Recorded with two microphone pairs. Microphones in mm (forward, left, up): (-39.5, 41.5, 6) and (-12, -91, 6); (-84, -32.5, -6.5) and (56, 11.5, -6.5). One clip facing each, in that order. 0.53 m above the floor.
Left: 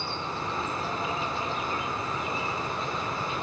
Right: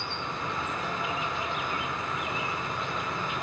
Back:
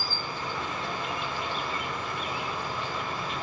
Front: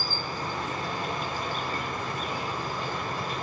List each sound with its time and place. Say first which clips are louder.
0.0 s an insect: left 2 dB, front 2 dB; 55° left, 2 m